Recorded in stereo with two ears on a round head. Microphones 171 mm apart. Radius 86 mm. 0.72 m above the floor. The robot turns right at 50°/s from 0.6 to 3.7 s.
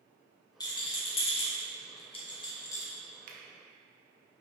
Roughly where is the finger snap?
Right.